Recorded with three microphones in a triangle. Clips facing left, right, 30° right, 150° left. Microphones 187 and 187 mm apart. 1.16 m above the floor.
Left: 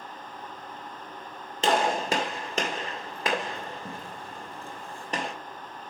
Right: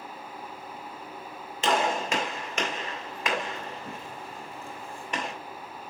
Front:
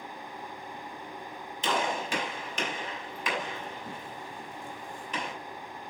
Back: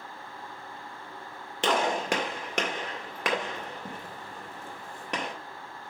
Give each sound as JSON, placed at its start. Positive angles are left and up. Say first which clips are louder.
{"t": 1.6, "sound": "a gunshot", "louder": "left 2 dB, back 4 dB", "azimuth_deg": 145, "distance_m": 1.9}